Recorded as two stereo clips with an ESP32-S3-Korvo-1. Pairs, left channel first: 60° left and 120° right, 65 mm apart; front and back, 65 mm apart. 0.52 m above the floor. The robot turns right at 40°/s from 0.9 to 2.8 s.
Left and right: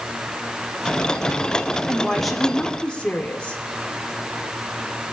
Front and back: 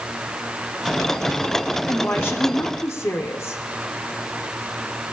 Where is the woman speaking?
45° right, 1.5 m; by 3.6 s 10° right, 1.5 m.